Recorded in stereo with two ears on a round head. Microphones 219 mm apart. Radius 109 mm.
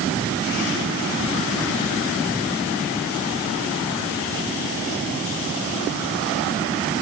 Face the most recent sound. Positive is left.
No sound to turn to.